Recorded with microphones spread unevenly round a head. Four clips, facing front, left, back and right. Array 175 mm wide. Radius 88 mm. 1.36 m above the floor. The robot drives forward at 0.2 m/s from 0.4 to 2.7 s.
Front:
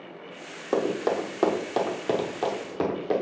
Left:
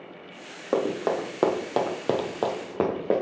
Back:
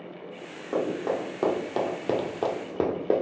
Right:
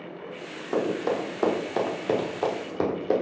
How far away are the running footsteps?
About 2.5 m.